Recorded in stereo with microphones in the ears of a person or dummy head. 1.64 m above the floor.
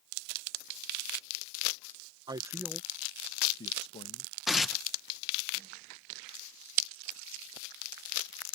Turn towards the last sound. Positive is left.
turn(degrees=-5)  # may be behind; listen again after turning